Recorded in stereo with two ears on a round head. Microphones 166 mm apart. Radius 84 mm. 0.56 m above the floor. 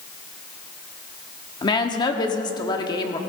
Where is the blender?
No blender in this recording.